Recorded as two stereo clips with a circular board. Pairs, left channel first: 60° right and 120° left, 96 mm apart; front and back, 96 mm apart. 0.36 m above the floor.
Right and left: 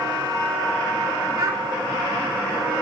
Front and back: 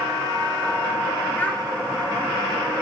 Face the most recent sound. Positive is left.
turn(degrees=70)